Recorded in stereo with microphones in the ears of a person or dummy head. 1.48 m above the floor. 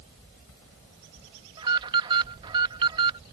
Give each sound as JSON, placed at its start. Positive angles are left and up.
{"t": 1.6, "sound": "an alarm", "side_deg": -25}